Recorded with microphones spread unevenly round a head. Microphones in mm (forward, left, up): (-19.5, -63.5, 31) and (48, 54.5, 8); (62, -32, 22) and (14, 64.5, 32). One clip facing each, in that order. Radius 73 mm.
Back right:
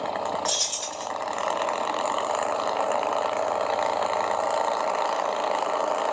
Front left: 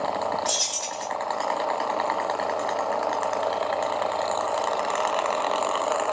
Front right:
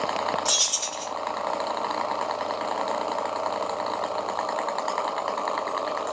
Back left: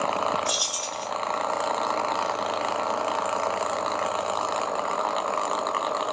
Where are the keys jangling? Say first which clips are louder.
Front left 1 dB, back left 1 dB; 80° right, 1.4 m.